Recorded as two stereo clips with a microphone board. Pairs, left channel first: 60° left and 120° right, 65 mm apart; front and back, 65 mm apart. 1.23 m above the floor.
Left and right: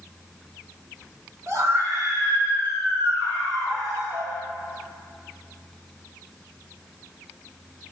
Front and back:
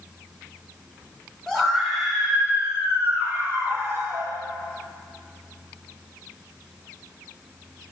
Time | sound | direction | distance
1.5 | a scream | 80° right | 4.5 m